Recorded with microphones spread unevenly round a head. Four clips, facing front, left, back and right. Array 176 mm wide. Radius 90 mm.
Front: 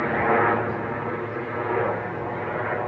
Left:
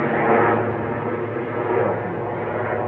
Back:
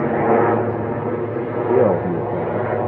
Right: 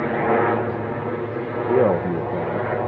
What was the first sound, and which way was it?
A helicopter, 165° left.